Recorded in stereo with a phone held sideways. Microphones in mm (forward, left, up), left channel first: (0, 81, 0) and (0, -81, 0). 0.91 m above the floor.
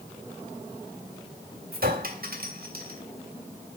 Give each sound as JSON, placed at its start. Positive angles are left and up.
{"t": 1.7, "sound": "a clink", "side_deg": -70, "distance_m": 1.4}